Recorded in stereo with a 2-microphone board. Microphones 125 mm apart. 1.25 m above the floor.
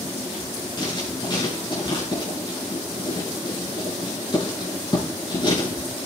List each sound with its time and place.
0.8 s writing: 40° left (ahead or behind), 6.5 m